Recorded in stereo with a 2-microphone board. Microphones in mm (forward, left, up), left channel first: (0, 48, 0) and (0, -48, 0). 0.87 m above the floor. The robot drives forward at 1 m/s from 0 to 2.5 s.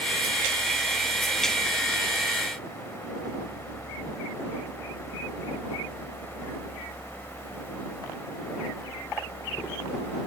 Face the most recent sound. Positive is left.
No sound to turn to.